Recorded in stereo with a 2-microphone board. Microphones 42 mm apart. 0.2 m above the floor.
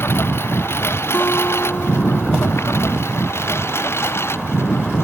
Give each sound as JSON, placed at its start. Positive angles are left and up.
{"t": 0.0, "sound": "a lawn mower", "side_deg": 70}
{"t": 1.1, "sound": "a guitar", "side_deg": 50}